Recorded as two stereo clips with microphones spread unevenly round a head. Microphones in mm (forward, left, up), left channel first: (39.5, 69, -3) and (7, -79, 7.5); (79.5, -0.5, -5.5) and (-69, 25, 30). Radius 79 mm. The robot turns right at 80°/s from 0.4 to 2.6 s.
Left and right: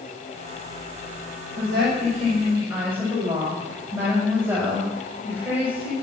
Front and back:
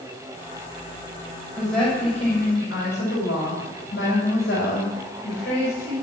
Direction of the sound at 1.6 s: 115° right.